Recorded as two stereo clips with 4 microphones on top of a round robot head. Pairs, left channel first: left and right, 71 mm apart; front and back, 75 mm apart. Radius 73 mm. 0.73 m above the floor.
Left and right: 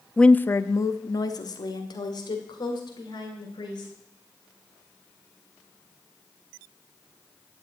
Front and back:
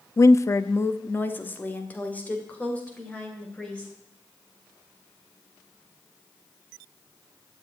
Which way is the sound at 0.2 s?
10° left.